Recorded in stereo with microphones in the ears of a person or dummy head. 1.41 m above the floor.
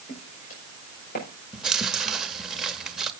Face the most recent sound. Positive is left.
turn(degrees=-5)  # may be behind; listen again after turning